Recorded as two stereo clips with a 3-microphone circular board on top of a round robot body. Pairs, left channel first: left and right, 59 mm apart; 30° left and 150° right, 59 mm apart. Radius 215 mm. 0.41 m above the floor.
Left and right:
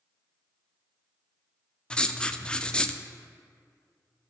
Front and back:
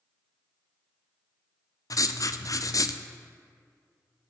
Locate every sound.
1.9 s writing: 20° left, 0.7 m